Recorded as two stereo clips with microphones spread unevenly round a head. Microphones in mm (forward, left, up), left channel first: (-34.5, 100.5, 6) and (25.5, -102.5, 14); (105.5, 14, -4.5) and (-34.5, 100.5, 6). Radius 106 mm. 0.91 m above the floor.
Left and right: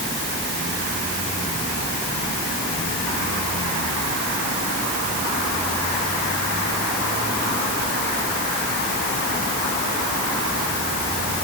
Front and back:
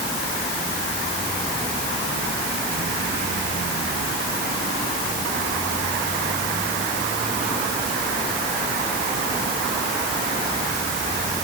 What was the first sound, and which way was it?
Only background noise.